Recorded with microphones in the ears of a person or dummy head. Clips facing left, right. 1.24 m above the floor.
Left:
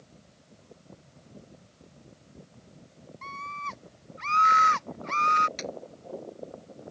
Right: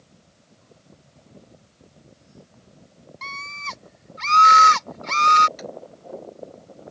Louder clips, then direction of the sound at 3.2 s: Right 1 dB; 85° right.